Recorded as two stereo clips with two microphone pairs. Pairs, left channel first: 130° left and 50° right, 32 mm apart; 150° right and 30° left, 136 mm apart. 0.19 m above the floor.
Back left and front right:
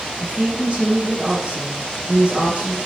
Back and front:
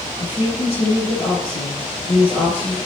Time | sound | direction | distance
0.2 | a woman speaking | 110° right | 4.5 m